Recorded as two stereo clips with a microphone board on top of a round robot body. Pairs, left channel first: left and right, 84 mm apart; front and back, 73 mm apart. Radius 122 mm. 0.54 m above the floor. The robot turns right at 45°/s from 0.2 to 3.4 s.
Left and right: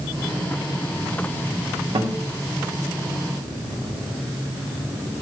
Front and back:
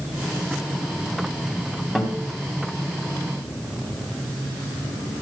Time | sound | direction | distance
1.9 | a guitar | 90° right | 2.5 m